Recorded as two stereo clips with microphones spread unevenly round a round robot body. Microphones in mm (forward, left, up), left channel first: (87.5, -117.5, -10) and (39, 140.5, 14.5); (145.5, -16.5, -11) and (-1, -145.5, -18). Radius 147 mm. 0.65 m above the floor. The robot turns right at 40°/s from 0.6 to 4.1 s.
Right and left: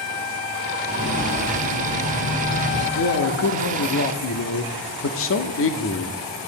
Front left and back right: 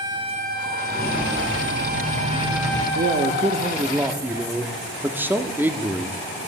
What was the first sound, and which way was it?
Footsteps, 125° left.